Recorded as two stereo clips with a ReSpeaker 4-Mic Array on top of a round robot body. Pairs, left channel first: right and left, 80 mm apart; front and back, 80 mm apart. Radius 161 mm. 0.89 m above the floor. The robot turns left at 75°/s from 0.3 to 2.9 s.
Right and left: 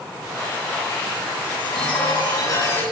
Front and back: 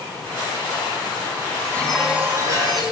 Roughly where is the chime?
Ahead right.